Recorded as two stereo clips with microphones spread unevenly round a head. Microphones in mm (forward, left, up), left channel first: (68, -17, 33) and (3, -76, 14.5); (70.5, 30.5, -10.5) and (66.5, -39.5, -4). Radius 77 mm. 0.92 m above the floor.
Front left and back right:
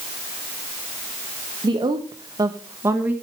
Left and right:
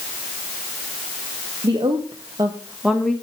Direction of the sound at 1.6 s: 115° right.